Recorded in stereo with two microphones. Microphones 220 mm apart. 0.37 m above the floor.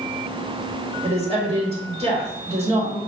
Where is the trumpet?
I don't hear a trumpet.